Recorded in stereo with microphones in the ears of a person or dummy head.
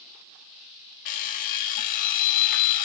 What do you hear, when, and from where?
1.1 s an alarm clock: 45° left (ahead or behind), 1.4 m